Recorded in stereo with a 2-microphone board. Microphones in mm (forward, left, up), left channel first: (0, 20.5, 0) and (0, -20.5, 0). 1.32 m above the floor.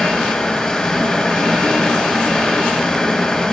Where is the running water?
15° left (ahead or behind), 3.5 m.